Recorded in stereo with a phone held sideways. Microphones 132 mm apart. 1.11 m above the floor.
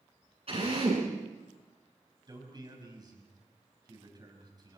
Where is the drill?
50° right (ahead or behind), 9.5 m.